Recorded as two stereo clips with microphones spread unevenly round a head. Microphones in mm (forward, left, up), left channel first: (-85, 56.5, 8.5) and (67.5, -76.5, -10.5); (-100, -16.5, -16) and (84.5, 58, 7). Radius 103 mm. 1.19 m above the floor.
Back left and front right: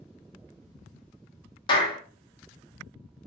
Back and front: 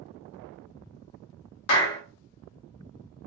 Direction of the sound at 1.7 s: 150° right.